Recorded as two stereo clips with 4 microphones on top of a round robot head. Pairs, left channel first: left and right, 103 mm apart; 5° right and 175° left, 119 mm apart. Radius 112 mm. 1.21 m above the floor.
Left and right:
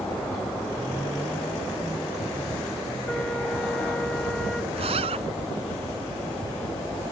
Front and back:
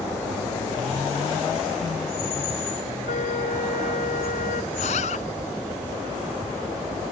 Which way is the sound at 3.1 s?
5° left.